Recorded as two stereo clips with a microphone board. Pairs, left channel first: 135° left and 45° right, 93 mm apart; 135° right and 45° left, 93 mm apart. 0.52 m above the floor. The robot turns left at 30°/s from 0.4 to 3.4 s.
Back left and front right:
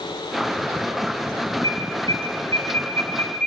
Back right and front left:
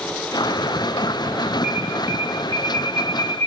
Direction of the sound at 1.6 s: 110° left.